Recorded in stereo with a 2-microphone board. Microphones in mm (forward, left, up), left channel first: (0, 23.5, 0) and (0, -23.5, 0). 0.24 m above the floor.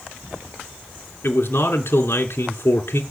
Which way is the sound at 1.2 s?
60° left (ahead or behind).